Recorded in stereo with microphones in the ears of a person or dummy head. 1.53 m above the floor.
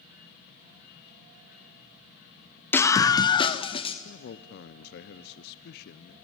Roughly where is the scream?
Centre.